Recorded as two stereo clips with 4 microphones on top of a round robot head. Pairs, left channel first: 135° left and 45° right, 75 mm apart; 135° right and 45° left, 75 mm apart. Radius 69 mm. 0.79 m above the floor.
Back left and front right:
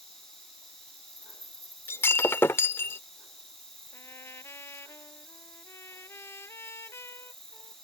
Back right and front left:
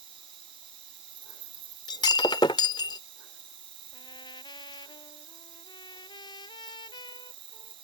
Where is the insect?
50° left.